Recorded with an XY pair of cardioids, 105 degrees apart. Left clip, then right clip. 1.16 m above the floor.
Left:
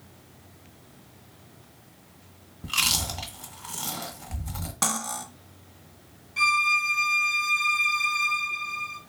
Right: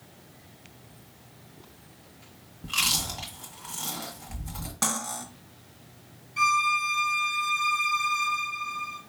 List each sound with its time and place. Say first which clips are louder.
2.6 s chewing: left 1 dB; 25° left, 1.0 m
4.8 s cutlery clinking: left 2 dB; 20° left, 0.8 m
6.4 s a violin: left 1 dB; 30° left, 1.1 m